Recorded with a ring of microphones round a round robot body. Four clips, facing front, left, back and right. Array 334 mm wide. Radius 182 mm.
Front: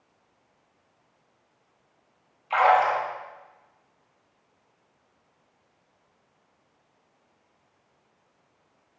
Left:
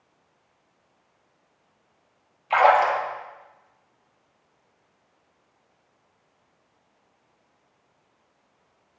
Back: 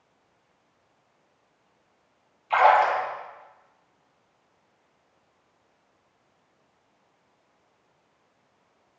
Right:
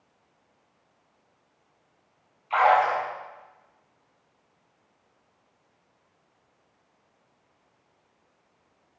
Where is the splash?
90° left, 7 m.